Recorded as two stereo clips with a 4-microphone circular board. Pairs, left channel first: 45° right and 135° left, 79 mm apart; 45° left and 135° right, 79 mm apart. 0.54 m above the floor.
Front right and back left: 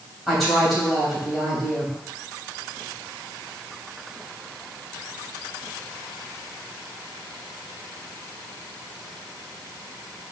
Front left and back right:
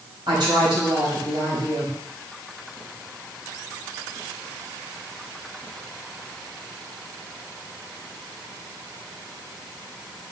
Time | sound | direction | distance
0.3 | a woman speaking | 135° right | 3.5 m